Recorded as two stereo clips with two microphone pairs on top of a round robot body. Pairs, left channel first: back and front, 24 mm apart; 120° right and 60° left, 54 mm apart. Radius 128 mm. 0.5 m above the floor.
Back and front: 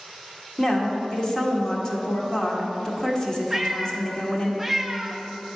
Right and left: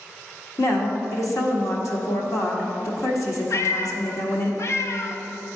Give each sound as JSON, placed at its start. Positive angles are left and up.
{"t": 0.6, "sound": "a woman speaking", "azimuth_deg": -130, "distance_m": 1.6}
{"t": 3.5, "sound": "a cat meowing", "azimuth_deg": -85, "distance_m": 0.5}